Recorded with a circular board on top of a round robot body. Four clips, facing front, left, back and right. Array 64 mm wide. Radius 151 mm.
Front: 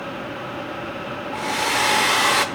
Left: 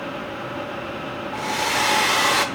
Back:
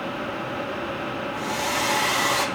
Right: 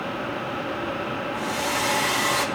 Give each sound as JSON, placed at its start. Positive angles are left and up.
{"t": 1.3, "sound": "a hair dryer", "azimuth_deg": 35, "distance_m": 1.2}